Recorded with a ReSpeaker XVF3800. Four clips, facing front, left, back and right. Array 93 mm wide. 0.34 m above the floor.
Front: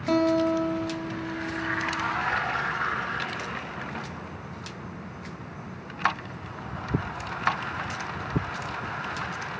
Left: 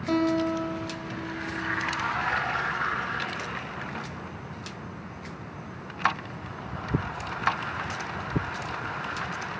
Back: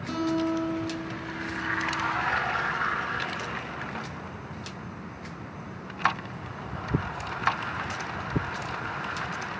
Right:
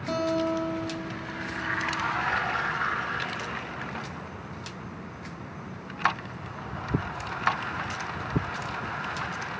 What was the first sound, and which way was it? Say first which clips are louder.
A guitar: left 2 dB, front 5 dB; 5° left.